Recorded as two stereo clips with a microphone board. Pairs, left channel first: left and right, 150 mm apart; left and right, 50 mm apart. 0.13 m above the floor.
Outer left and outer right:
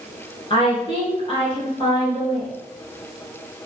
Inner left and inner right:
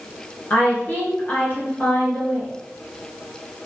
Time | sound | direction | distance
0.5 | a woman speaking | 35° left (ahead or behind) | 1.5 m